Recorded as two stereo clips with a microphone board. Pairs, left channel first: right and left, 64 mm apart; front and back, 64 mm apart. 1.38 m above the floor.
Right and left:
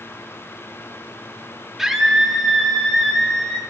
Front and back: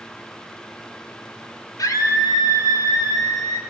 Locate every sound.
1.8 s a scream: 5° left, 3 m; by 3.6 s 15° right, 3 m